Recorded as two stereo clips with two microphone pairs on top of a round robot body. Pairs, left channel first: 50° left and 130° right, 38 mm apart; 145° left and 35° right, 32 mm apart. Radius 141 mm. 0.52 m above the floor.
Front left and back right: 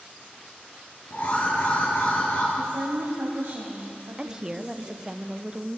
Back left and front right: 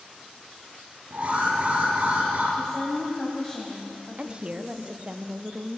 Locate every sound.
1.1 s an alarm: 10° left, 6.5 m
2.5 s a woman speaking: 145° right, 4 m
4.2 s a woman speaking: 95° right, 1.1 m